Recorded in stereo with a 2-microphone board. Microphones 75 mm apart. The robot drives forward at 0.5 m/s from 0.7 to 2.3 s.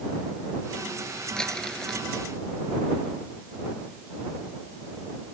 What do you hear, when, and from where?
1.4 s crumpling: 10° left (ahead or behind)